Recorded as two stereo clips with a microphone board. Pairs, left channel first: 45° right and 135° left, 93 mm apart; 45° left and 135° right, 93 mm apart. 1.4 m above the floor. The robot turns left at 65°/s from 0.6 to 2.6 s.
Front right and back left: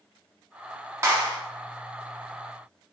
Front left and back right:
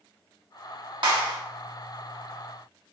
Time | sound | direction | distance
1.0 | a clap | 165° right | 1.1 m